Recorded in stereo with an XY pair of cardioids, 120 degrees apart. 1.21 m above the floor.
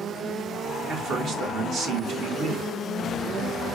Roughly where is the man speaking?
Ahead right.